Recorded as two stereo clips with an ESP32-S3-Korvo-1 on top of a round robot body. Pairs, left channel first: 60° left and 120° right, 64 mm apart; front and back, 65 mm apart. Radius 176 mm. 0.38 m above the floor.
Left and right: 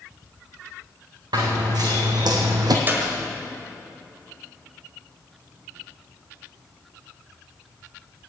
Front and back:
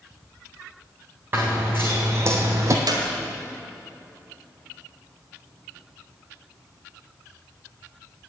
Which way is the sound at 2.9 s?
Straight behind.